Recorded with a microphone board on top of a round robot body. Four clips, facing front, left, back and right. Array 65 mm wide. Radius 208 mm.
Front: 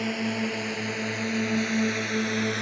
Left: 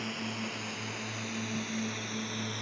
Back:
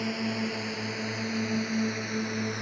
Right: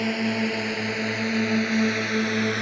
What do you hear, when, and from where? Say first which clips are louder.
0.0 s a drone: right 12 dB, front 3 dB; 80° right; by 2.6 s 70° right